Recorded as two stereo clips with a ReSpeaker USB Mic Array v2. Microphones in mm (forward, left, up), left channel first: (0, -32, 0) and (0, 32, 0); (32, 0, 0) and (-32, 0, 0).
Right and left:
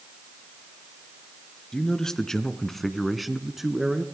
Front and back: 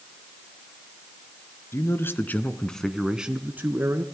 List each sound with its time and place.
1.7 s a man speaking: 15° right, 2 m; by 4.0 s 170° left, 2.0 m